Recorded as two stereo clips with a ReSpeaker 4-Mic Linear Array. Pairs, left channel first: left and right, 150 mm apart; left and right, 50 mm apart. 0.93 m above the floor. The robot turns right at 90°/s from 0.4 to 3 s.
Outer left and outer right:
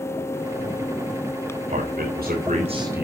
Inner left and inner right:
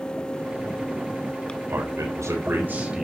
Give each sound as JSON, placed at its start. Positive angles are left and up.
{"t": 1.7, "sound": "a man speaking", "azimuth_deg": -130, "distance_m": 3.0}